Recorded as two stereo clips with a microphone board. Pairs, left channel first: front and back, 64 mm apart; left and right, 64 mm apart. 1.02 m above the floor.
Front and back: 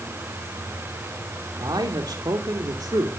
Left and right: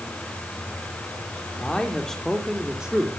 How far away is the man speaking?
About 2.5 m.